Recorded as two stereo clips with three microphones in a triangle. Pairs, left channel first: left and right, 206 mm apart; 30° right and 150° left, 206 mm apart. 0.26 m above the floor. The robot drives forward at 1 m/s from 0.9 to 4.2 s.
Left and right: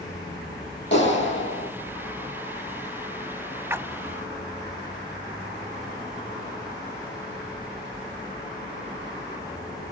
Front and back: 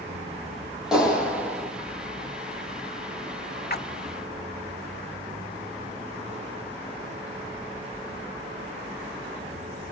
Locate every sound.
0.9 s a clap: 65° left, 7 m; by 1.7 s 70° left, 6.5 m
3.7 s a splash: 10° right, 0.6 m; by 3.9 s 15° right, 0.5 m